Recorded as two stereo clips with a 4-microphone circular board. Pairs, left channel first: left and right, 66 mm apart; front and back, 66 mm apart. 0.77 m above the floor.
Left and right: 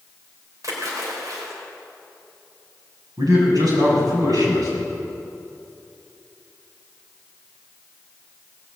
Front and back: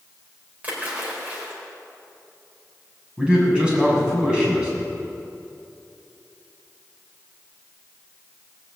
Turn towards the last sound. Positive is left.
turn(degrees=-105)